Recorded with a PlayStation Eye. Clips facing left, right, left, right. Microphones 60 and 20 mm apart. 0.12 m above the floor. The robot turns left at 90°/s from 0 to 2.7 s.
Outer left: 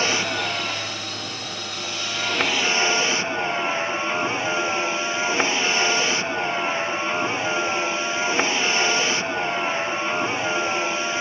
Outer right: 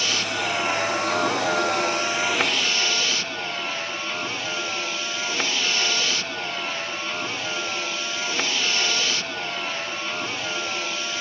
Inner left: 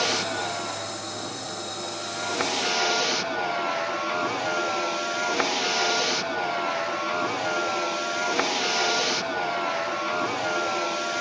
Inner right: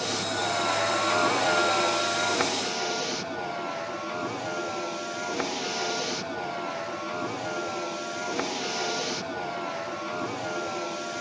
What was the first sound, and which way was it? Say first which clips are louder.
A vehicle: outer left 2 dB, inner left 3 dB; 40° left.